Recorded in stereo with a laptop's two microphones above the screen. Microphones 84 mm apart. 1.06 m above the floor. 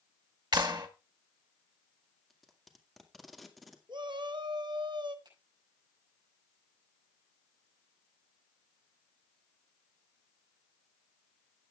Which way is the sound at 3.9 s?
65° right (ahead or behind).